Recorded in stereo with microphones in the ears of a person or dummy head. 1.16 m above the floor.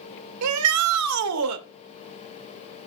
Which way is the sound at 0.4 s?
85° right.